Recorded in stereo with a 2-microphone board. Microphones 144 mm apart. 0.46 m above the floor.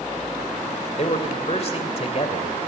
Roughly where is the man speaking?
Left.